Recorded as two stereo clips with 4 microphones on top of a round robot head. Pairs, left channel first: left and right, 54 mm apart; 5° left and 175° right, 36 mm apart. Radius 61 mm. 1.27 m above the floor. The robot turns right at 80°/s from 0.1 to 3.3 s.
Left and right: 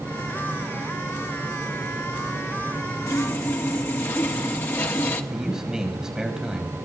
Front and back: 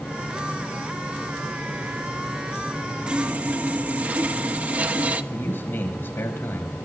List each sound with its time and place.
3.1 s sawing: 125° left, 1.3 m; by 5.2 s 145° left, 1.3 m
5.3 s a man speaking: 10° right, 5 m